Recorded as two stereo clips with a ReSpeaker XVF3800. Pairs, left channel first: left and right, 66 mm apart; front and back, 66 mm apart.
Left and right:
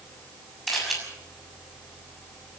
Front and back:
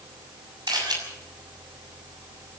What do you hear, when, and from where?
0.7 s a camera shutter: straight behind, 6.5 m